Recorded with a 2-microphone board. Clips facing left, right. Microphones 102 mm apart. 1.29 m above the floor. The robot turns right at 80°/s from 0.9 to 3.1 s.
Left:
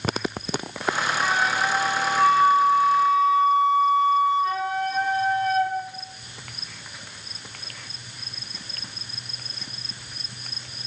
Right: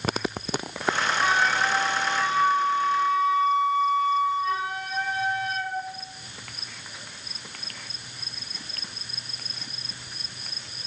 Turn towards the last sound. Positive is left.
turn(degrees=140)